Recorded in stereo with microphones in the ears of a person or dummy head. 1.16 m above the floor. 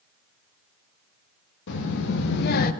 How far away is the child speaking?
About 1.0 m.